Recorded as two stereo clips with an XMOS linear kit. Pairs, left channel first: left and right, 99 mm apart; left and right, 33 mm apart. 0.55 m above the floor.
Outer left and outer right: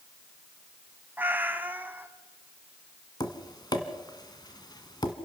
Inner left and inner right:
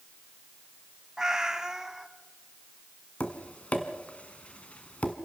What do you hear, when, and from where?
1.2 s a cat meowing: 20° right (ahead or behind), 1.1 m
3.2 s tapping: 45° left (ahead or behind), 1.5 m